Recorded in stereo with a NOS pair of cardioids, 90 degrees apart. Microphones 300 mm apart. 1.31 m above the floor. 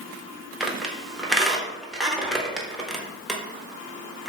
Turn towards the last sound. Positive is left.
turn(degrees=0)